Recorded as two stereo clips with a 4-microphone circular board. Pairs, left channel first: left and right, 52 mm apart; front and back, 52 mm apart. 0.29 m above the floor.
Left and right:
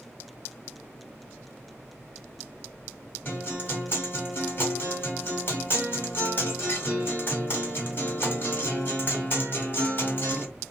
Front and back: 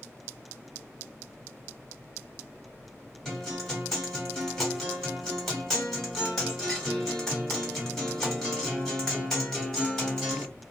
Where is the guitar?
80° left, 1.5 m.